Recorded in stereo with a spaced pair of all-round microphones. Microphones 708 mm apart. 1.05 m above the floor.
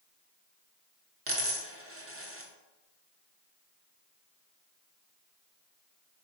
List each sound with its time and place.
1.3 s a dropped coin: 20° right (ahead or behind), 0.5 m